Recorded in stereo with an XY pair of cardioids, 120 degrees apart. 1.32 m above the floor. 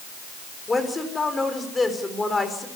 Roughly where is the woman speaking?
Ahead.